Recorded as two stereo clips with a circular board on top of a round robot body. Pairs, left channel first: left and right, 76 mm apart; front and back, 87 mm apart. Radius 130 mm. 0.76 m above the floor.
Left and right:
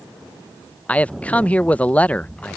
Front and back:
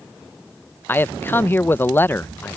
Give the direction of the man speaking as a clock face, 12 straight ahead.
11 o'clock.